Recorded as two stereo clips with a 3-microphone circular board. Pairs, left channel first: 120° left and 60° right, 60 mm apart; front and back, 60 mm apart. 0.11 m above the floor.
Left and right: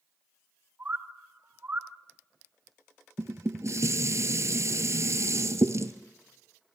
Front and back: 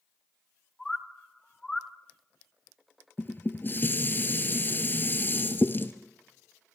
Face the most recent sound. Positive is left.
turn(degrees=-50)